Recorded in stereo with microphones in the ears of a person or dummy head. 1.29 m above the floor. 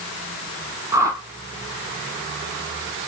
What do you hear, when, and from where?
0.9 s a whoosh: 15° right (ahead or behind), 0.9 m